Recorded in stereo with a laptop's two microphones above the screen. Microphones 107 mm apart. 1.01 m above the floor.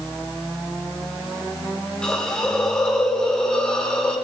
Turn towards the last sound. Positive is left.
turn(degrees=10)  # may be behind; listen again after turning